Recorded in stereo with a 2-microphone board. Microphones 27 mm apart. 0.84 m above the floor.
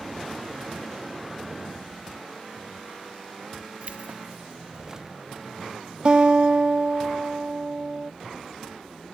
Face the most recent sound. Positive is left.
turn(degrees=-35)  # may be behind; listen again after turning